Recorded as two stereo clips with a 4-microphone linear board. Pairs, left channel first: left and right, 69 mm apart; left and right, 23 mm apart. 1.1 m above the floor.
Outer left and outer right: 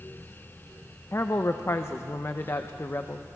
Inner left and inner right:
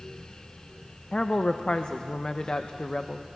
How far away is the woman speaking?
About 0.8 m.